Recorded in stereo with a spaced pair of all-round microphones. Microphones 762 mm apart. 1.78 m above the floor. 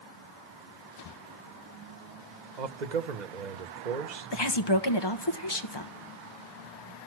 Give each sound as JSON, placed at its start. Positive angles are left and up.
{"t": 2.6, "sound": "a man speaking", "side_deg": -65, "distance_m": 1.0}
{"t": 4.3, "sound": "a woman speaking", "side_deg": 35, "distance_m": 1.2}